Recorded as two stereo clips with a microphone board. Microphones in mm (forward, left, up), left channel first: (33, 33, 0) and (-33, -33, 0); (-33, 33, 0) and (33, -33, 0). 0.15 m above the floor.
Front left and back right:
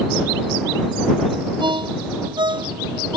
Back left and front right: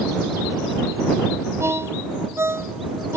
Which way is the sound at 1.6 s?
105° right.